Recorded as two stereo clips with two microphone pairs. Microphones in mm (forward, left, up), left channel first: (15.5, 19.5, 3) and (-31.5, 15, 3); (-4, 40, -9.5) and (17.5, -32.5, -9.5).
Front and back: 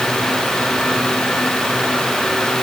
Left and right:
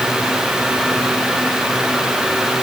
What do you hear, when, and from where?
Only background noise.